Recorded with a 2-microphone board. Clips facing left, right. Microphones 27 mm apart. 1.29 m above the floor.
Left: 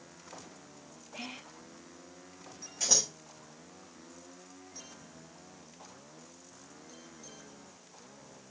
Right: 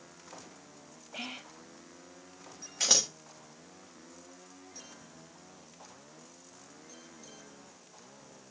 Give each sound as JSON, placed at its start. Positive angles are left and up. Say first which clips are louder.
{"t": 1.1, "sound": "whispering", "louder": "right 2 dB", "side_deg": -45, "distance_m": 1.6}
{"t": 2.8, "sound": "scissors", "louder": "right 2 dB", "side_deg": -75, "distance_m": 0.9}